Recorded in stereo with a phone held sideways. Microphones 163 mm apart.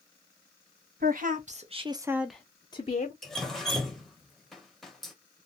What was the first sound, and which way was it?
A woman speaking, 60° right (ahead or behind).